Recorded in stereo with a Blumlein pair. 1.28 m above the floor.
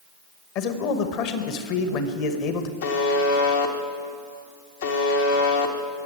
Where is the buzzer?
60° left, 1.4 m.